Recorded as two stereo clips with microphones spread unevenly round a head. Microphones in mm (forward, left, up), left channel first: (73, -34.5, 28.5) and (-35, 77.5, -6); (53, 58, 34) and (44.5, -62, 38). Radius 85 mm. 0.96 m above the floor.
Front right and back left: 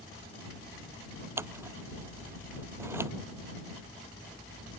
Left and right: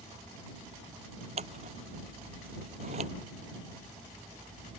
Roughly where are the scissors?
Behind right.